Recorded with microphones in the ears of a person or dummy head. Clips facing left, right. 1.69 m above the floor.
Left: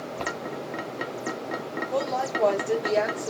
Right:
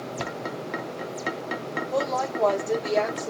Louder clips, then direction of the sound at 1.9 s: Right 1 dB; 5° left (ahead or behind).